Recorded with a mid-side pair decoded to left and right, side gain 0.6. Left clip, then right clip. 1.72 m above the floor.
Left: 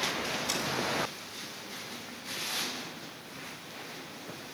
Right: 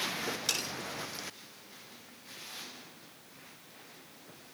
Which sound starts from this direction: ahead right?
Cutlery clinking, at 0.5 s.